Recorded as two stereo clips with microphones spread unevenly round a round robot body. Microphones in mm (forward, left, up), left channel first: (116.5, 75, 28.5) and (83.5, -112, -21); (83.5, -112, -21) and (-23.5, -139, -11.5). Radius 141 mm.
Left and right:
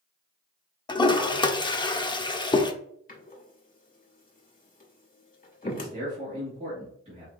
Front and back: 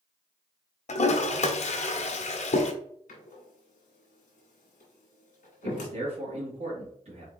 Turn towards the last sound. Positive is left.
turn(degrees=-160)